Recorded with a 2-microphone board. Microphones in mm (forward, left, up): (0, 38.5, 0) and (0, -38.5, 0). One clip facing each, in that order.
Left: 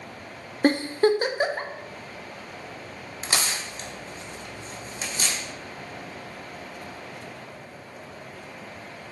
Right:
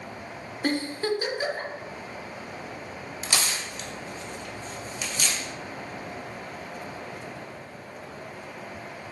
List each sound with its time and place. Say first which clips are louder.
0.6 s a giggle: left 7 dB; 40° left (ahead or behind), 0.7 m
3.2 s tearing paper: left 1 dB; 35° left (ahead or behind), 1.1 m